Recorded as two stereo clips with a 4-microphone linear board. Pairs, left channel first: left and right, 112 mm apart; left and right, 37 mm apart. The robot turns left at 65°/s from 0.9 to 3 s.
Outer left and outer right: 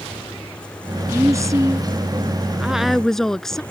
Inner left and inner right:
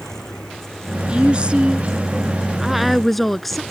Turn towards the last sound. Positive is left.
turn(degrees=175)